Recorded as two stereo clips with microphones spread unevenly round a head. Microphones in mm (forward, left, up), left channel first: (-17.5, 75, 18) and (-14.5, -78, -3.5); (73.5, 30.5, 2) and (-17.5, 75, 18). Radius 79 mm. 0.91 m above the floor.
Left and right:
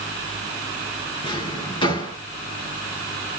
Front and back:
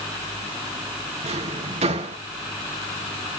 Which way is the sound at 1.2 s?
150° left.